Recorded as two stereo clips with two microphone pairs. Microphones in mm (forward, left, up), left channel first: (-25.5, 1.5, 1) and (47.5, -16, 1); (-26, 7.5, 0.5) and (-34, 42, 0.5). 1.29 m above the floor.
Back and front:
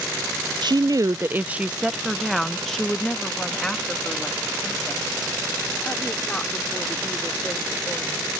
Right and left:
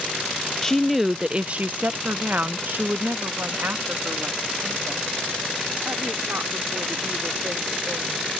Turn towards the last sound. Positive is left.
turn(degrees=95)